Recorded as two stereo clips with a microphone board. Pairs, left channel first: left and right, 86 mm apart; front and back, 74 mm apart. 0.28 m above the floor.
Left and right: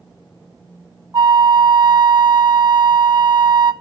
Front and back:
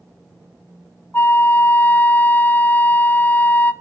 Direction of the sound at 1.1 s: 60° right.